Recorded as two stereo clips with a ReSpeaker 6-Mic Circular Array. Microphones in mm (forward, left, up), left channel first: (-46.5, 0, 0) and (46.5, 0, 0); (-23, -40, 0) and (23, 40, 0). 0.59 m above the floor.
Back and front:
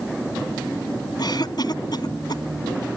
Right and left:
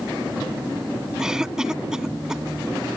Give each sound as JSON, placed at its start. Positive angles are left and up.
{"t": 1.2, "sound": "a cough", "azimuth_deg": 145}